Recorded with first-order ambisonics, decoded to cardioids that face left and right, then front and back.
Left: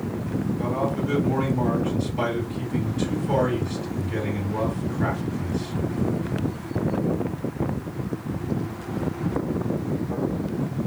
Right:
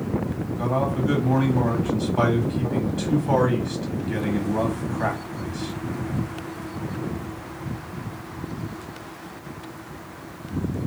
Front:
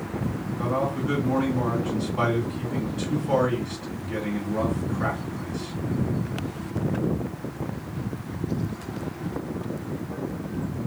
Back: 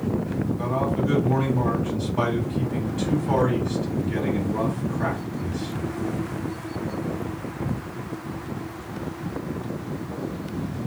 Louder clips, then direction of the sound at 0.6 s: Right 3 dB, even; 105° right.